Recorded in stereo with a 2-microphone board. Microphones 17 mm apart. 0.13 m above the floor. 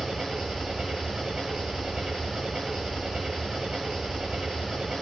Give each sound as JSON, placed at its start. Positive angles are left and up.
{"t": 0.0, "sound": "an engine running", "side_deg": -70, "distance_m": 2.5}